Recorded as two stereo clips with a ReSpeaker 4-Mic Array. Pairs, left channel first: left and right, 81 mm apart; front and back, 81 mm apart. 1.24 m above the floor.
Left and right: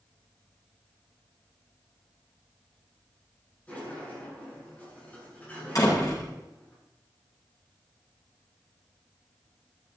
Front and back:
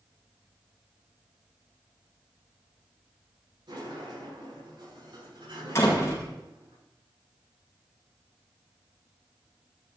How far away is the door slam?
About 6.5 m.